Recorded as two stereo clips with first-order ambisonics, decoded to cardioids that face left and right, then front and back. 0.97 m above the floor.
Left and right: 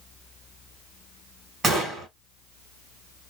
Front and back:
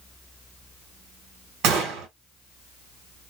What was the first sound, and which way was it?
A gunshot, 160° right.